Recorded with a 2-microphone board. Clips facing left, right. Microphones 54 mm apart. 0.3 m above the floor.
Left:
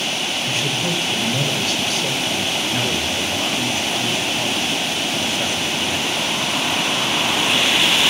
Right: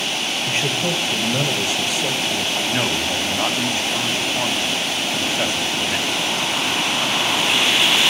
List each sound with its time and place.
0.5 s a man speaking: 35° right (ahead or behind), 1.4 m; by 2.5 s 5° right (ahead or behind), 1.5 m
2.5 s a man speaking: 30° right (ahead or behind), 2.5 m